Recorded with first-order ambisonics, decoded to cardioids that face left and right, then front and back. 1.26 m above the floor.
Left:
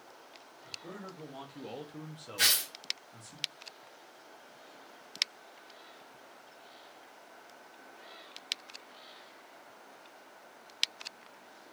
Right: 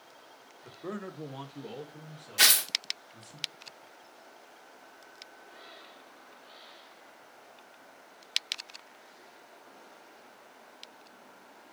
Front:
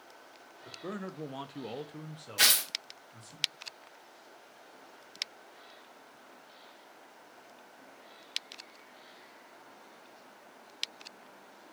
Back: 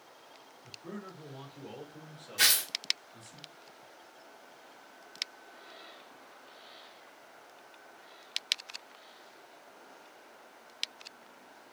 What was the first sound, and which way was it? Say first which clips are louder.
A man speaking: right 4 dB, front 5 dB; 50° right.